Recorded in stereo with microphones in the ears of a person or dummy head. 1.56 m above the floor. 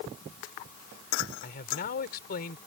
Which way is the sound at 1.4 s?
55° left (ahead or behind).